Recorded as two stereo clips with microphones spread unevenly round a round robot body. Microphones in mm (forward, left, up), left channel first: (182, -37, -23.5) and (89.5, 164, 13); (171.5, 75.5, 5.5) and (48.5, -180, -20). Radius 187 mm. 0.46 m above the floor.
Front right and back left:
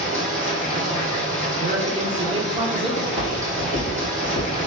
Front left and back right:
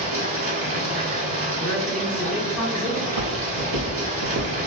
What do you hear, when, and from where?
0.0 s running water: 115° right, 2 m
1.6 s a woman speaking: 160° left, 0.7 m
3.0 s footsteps: 125° right, 2.0 m; by 4.6 s 105° right, 1.2 m